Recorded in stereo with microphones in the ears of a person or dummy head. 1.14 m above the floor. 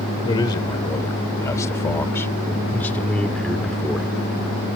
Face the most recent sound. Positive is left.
turn(degrees=0)  # may be behind; listen again after turning